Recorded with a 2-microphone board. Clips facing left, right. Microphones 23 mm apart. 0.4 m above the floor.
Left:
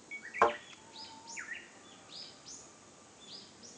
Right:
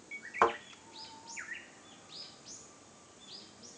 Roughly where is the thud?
Centre.